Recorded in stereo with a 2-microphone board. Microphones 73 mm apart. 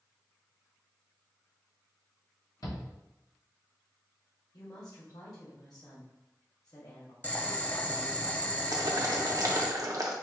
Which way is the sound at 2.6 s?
65° left (ahead or behind).